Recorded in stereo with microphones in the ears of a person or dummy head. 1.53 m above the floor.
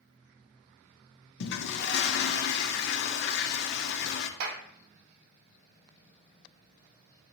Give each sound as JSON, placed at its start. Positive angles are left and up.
{"t": 1.4, "sound": "a toilet flushing", "side_deg": 55, "distance_m": 0.6}
{"t": 4.4, "sound": "a clap", "side_deg": -70, "distance_m": 0.7}